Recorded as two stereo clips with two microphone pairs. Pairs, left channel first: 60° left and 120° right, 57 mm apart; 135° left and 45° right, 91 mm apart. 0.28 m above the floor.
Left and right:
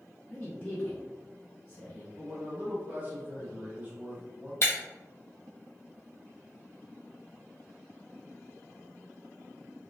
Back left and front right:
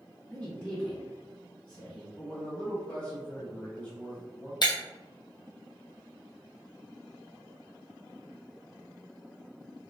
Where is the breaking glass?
100° left, 1.1 m.